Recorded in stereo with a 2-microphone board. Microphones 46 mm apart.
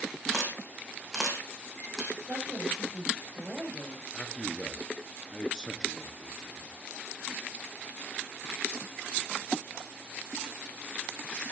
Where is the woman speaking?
10° right (ahead or behind), 7.5 m.